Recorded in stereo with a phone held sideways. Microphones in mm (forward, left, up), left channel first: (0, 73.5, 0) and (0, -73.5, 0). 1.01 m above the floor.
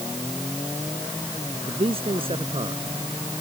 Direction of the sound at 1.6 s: 40° right (ahead or behind).